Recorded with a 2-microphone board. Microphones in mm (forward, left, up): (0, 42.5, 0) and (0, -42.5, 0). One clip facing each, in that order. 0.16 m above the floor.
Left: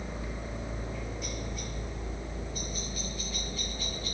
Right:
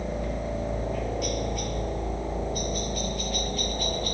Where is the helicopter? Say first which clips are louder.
Right 8 dB; 65° right (ahead or behind); by 4.1 s 60° right (ahead or behind).